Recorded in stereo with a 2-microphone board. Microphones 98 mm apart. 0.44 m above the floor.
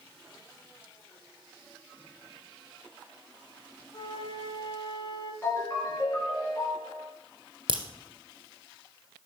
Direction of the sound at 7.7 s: 55° right (ahead or behind).